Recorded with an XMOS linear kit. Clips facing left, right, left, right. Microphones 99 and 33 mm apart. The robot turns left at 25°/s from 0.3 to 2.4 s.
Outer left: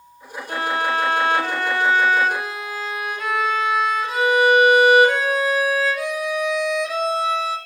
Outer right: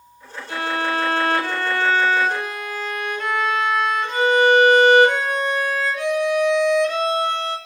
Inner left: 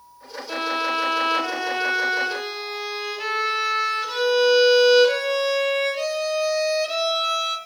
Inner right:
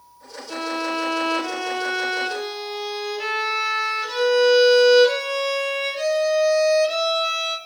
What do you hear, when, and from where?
0.5 s a violin: 50° left, 1.7 m; by 7.6 s 5° left, 1.7 m